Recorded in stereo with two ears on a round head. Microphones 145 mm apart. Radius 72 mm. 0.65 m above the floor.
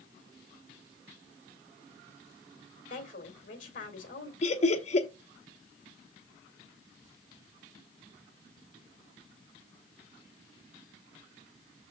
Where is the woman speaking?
50° left (ahead or behind), 2.5 m.